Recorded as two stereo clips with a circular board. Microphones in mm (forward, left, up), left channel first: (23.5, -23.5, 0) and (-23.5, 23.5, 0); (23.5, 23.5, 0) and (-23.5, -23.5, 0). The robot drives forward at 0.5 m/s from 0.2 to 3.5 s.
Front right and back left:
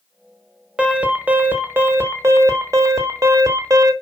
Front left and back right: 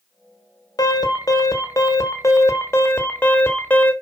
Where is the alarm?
60° left, 1.7 m; by 3.9 s 110° left, 1.6 m.